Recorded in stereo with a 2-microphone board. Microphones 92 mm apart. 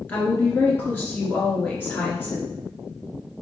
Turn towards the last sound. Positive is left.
turn(degrees=20)  # may be behind; listen again after turning